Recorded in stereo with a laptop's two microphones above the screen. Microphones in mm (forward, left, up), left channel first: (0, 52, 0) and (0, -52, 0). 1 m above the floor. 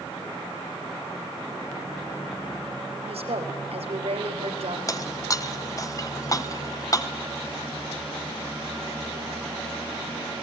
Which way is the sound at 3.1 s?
75° right (ahead or behind).